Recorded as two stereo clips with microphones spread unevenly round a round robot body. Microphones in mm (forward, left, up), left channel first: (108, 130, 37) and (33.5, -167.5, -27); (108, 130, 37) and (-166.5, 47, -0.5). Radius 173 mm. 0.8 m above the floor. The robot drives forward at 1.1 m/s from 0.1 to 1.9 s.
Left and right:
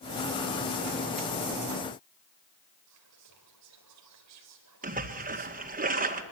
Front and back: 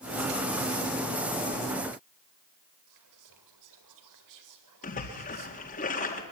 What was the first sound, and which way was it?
Whispering, 145° right.